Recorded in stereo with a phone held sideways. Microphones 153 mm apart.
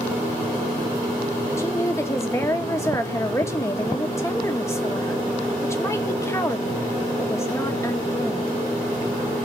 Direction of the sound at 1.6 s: 20° left (ahead or behind).